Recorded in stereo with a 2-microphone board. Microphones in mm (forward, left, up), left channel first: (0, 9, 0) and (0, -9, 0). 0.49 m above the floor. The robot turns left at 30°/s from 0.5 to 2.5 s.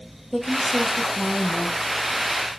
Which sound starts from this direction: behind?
A woman speaking, at 0.3 s.